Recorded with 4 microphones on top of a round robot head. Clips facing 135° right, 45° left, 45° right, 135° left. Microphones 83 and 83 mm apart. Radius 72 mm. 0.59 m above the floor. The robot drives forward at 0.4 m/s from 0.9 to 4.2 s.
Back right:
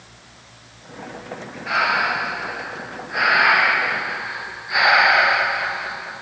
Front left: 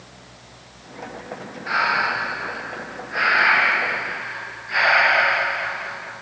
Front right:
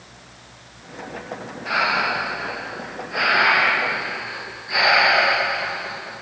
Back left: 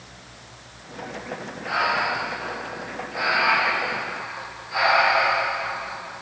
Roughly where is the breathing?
Ahead right.